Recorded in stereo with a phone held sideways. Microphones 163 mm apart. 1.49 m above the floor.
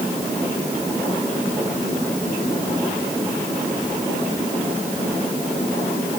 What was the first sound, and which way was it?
Only background noise.